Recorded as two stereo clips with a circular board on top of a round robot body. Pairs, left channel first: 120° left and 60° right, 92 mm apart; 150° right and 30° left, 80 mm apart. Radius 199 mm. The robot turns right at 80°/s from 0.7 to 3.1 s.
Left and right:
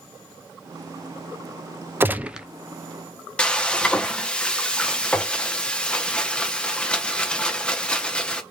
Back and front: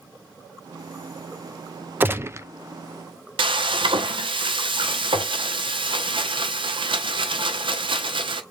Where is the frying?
40° left, 0.6 m.